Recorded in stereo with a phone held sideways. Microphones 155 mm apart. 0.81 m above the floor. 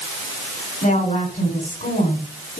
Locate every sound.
0.8 s a woman speaking: 55° left (ahead or behind), 5.5 m